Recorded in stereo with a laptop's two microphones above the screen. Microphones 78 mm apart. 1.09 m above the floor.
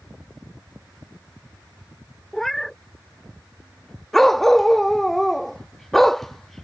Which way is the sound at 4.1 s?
5° left (ahead or behind).